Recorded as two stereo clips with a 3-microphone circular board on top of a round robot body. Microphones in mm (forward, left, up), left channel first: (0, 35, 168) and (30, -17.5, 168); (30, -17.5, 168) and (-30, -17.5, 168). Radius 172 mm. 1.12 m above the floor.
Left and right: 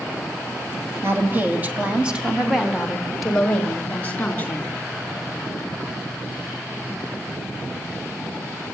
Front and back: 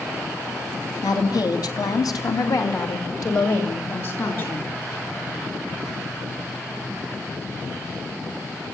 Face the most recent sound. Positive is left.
turn(degrees=50)